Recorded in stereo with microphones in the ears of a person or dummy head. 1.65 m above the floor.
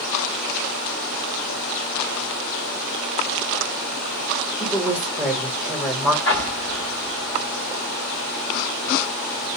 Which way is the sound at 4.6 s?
5° right (ahead or behind).